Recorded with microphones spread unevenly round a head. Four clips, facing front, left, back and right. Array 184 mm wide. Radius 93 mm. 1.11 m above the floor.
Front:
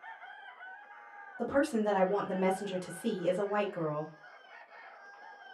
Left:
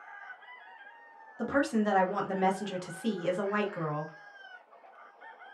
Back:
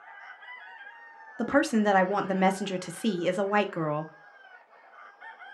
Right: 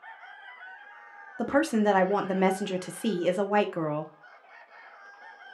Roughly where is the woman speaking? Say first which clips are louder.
Right 4 dB, back 5 dB; behind right.